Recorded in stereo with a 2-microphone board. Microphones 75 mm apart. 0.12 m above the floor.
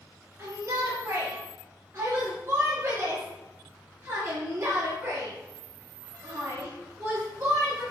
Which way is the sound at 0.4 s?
40° right (ahead or behind).